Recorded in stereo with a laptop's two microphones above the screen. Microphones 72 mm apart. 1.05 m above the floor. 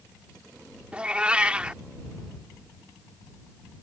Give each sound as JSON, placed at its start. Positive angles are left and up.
{"t": 0.9, "sound": "a cat meowing", "side_deg": -15}